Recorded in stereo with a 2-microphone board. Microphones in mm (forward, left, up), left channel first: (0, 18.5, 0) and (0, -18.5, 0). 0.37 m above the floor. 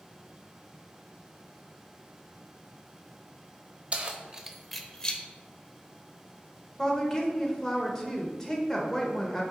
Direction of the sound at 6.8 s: 15° left (ahead or behind).